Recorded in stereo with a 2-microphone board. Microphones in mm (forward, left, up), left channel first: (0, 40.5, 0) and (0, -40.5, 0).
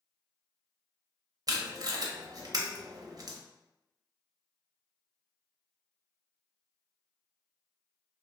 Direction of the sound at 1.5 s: 50° right (ahead or behind).